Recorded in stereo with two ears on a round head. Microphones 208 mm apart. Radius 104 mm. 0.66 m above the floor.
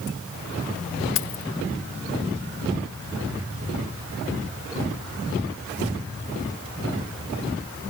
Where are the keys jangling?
60° left (ahead or behind).